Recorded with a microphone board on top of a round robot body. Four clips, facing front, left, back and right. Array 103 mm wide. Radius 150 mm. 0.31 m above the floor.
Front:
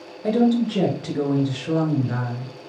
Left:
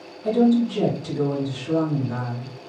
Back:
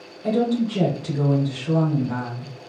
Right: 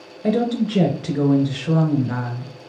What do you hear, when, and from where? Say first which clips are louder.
0.2 s a woman speaking: left 2 dB, front 2 dB; 80° right, 2.5 m